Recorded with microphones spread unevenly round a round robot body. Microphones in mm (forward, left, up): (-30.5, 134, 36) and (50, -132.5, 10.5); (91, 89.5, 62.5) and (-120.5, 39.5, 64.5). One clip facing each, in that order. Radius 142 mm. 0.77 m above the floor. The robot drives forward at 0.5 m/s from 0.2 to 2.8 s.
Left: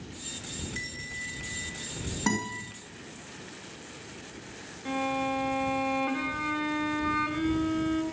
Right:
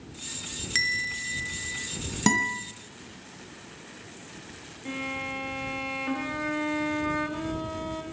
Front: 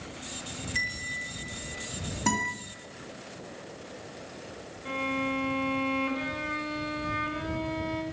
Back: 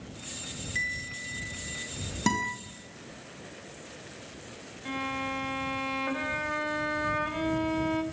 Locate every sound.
0.8 s a bell: 80° right, 1.0 m; by 1.9 s 115° right, 1.0 m
2.3 s a guitar: 110° right, 3 m; by 2.5 s 115° right, 3 m
4.8 s a violin: 160° right, 2.5 m